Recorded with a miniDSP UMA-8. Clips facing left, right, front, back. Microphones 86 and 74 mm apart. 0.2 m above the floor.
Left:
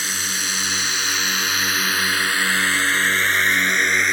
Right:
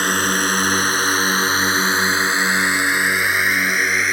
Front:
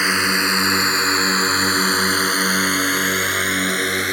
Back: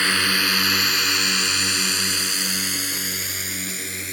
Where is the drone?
70° right; by 4.1 s straight ahead.